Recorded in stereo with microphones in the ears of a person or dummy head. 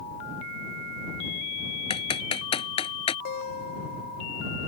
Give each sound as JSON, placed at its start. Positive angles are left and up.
{"t": 1.9, "sound": "typing on a keyboard", "side_deg": 25}
{"t": 3.2, "sound": "a guitar", "side_deg": 50}